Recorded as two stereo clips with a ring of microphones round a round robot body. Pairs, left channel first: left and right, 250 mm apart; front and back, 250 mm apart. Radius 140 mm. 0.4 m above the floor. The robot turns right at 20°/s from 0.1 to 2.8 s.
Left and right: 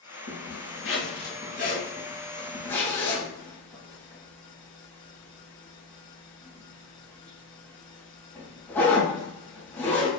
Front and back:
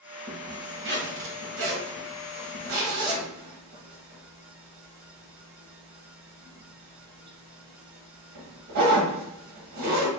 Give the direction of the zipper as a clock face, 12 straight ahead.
8 o'clock.